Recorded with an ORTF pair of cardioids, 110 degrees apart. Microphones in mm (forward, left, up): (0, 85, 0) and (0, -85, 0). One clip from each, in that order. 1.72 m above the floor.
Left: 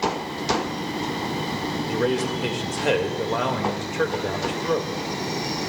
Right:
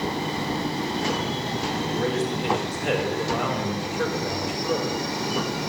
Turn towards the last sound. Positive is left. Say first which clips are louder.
# left 5 dB
turn(degrees=35)